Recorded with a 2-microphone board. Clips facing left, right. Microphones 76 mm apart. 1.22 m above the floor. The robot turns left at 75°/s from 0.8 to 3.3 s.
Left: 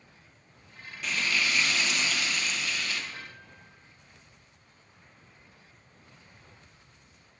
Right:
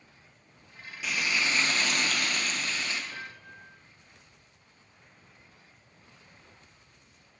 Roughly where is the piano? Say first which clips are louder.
Right 3 dB; right.